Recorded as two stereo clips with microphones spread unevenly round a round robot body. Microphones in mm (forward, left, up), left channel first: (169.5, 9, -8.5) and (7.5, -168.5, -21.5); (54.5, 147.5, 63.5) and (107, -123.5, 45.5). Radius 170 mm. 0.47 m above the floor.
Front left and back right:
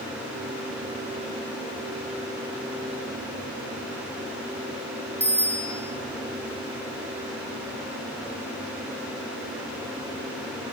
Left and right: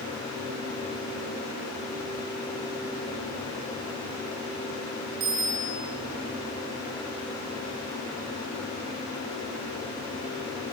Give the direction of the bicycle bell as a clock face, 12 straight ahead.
2 o'clock.